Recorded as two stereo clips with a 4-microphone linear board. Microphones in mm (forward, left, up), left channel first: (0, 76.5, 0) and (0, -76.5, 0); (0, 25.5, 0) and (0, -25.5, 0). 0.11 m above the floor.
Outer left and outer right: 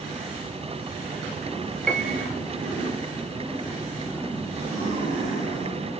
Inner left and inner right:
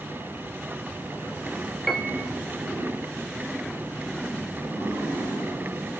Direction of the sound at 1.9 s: 5° left (ahead or behind).